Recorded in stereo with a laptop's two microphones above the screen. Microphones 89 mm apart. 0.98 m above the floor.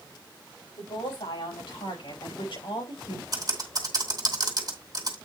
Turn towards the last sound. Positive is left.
turn(degrees=-45)  # may be behind; listen again after turning